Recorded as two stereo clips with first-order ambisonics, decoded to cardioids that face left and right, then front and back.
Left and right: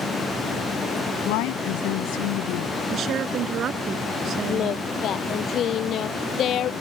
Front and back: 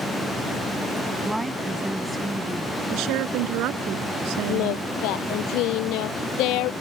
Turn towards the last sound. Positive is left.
turn(degrees=35)